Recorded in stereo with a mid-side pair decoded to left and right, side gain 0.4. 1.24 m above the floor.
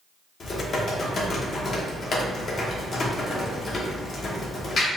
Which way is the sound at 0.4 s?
55° left.